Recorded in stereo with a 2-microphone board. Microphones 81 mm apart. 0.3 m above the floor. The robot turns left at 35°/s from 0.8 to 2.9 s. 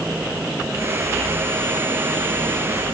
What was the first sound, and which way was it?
Only background noise.